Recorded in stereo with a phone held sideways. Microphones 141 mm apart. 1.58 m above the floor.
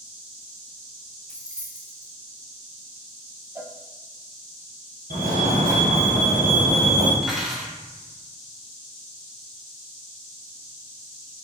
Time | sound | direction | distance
1.3 | keys jangling | 5° left (ahead or behind) | 0.9 m
3.5 | a cowbell | 15° right (ahead or behind) | 0.7 m
5.1 | a fire alarm | 80° right | 2 m
7.2 | cutlery clinking | 5° right (ahead or behind) | 1.9 m